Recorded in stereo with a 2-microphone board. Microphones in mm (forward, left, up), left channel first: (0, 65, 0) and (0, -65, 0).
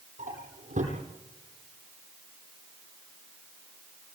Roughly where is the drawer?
Right.